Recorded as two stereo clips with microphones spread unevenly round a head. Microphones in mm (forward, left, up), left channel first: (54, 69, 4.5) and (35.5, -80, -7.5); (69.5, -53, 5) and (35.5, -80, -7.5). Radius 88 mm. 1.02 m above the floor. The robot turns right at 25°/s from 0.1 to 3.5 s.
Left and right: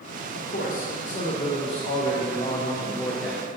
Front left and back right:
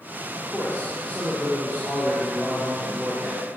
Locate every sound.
0.3 s a man speaking: 100° left, 1.0 m; by 3.4 s 175° left, 1.0 m